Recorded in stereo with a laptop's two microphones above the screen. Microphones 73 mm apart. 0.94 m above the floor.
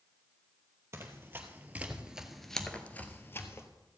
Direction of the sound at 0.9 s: 35° right (ahead or behind).